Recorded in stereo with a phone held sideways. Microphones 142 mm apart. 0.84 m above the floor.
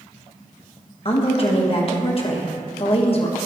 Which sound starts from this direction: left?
A woman speaking, at 1.1 s.